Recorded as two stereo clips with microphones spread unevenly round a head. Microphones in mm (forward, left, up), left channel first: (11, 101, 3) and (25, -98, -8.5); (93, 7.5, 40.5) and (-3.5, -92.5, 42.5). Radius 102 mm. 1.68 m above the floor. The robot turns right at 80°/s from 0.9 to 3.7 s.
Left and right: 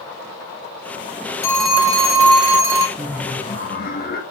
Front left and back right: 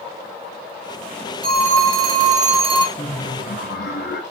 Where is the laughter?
10° right, 1.9 m; by 4.2 s 50° left, 1.9 m.